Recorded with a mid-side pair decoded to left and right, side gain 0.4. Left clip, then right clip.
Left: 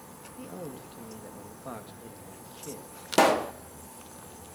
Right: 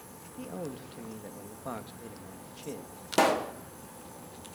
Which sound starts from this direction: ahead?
A man speaking, at 0.4 s.